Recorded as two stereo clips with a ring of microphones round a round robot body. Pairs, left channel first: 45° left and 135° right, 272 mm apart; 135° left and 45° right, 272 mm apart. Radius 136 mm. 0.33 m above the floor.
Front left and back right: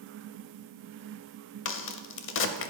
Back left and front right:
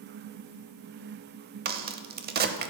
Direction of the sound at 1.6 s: 5° left.